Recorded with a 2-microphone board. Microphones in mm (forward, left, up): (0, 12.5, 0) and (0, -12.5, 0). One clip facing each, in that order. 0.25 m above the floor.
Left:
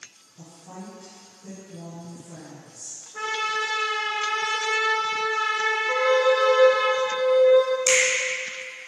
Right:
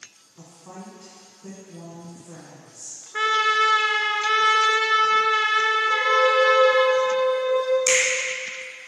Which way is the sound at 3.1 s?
85° right.